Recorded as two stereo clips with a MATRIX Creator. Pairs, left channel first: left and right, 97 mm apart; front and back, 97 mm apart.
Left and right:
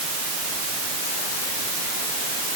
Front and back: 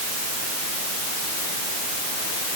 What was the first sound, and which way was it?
Only background noise.